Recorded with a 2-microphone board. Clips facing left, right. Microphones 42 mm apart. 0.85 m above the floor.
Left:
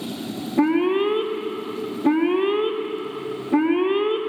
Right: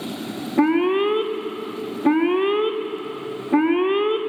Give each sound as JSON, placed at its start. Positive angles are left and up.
{"t": 0.6, "sound": "an alarm", "side_deg": -15, "distance_m": 1.6}